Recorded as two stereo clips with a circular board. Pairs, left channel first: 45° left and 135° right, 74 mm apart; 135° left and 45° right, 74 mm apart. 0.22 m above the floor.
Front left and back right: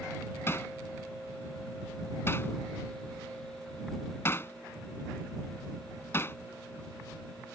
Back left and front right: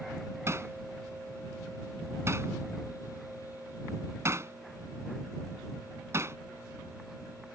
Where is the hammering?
5° right.